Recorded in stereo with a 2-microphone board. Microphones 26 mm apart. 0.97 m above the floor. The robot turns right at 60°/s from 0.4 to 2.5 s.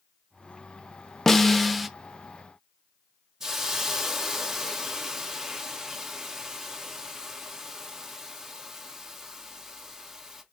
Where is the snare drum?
155° left, 0.6 m; by 1.9 s 165° right, 0.6 m.